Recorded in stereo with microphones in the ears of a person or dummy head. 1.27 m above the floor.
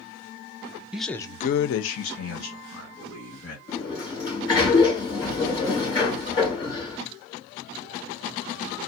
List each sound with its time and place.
0.9 s a man speaking: 5° right (ahead or behind), 0.7 m; by 3.6 s 55° left (ahead or behind), 2.5 m
3.7 s a sliding door: 30° left (ahead or behind), 2.5 m